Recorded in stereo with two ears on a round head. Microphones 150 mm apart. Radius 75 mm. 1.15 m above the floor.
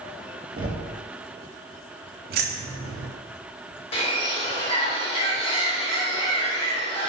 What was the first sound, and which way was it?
Knocking, 30° right (ahead or behind).